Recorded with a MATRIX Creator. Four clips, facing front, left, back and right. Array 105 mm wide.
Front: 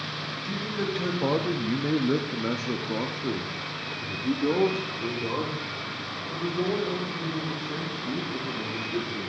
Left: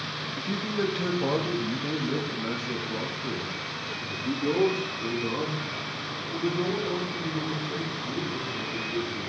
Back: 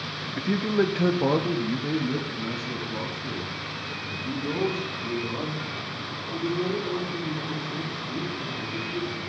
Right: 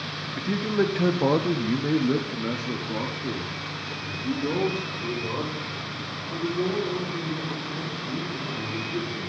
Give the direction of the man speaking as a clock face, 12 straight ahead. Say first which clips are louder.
Right 5 dB, back 9 dB; 5 o'clock.